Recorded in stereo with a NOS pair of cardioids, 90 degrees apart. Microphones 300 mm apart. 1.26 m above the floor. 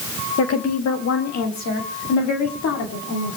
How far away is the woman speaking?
About 1.7 m.